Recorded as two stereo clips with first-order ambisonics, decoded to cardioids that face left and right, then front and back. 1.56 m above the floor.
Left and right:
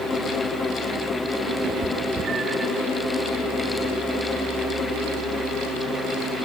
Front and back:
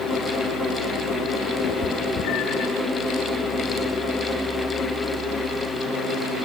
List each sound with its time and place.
1.6 s a cat meowing: 40° right, 4 m; by 2.7 s 20° right, 3 m